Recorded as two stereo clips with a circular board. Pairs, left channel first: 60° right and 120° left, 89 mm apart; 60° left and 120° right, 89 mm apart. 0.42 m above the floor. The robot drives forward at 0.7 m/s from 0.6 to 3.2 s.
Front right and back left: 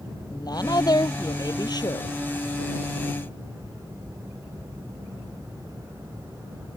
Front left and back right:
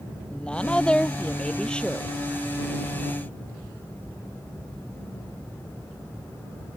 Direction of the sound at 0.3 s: 20° right.